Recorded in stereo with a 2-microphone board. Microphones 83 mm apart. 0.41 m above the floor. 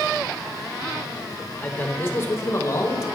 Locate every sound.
1.6 s a man speaking: 20° left (ahead or behind), 1.4 m; by 3.0 s 45° left (ahead or behind), 1.8 m